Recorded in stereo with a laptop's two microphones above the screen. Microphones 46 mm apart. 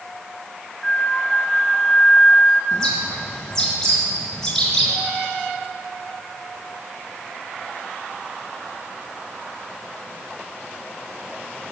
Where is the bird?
15° left (ahead or behind), 5 m.